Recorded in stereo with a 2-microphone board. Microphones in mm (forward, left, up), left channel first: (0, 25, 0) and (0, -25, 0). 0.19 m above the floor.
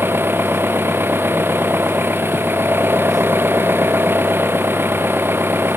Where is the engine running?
45° right (ahead or behind).